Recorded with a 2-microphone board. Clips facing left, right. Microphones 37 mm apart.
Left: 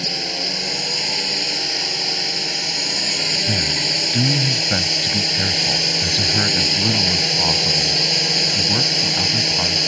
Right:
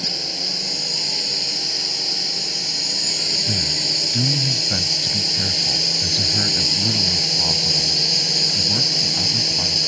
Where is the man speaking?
30° left (ahead or behind).